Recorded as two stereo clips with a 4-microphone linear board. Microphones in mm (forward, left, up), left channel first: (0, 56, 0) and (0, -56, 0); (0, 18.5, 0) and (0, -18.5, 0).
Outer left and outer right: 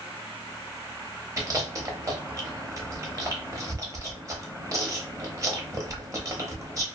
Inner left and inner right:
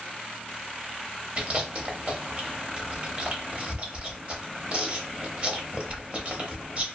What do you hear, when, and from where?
1.4 s chewing: 30° right (ahead or behind), 0.7 m